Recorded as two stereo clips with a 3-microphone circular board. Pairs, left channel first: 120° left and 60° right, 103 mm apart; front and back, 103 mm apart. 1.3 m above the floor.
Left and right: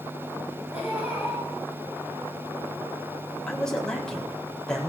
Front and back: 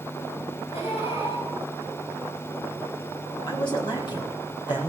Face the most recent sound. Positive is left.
turn(degrees=35)